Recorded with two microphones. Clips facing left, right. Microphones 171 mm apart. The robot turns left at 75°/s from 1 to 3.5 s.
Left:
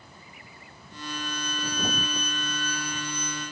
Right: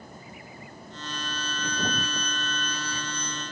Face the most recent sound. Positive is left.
turn(degrees=115)